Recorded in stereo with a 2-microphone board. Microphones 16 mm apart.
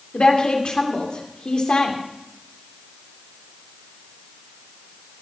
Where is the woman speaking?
85° left, 2.5 m.